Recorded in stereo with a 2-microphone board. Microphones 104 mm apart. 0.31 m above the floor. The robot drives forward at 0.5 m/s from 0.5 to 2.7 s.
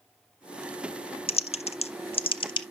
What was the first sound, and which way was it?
Typing on a keyboard, 60° left (ahead or behind).